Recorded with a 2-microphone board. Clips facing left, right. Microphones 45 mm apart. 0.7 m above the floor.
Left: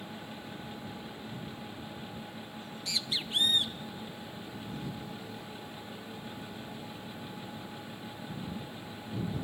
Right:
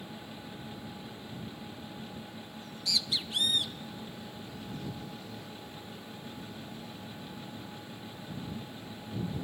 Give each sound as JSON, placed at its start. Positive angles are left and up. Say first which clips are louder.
{"t": 2.6, "sound": "a bird", "louder": "right 3 dB", "side_deg": 30}